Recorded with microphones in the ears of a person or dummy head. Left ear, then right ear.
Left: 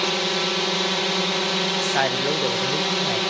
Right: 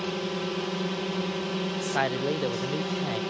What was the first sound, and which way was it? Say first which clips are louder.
A drone: left 9 dB; 40° left (ahead or behind).